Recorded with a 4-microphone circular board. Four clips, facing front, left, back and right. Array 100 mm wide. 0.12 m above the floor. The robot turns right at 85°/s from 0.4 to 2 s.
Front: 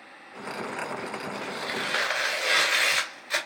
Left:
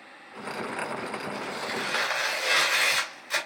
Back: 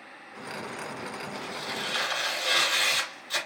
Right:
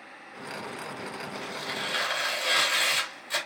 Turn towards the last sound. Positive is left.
turn(degrees=20)